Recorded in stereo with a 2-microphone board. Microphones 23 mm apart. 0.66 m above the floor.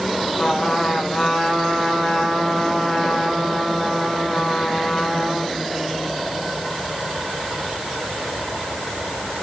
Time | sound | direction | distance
0.4 | a trumpet | 25° left (ahead or behind) | 5 m